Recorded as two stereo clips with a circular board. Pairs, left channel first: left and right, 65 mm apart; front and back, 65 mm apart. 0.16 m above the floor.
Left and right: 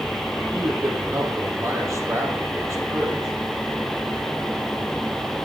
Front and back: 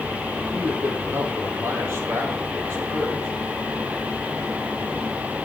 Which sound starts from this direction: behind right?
A man speaking, at 0.5 s.